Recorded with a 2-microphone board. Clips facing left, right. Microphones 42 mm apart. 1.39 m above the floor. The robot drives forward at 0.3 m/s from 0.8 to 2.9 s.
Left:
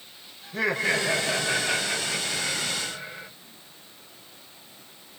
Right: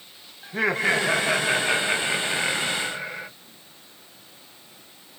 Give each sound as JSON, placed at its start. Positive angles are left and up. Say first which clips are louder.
{"t": 0.4, "sound": "laughter", "louder": "right 3 dB", "side_deg": -35, "distance_m": 1.2}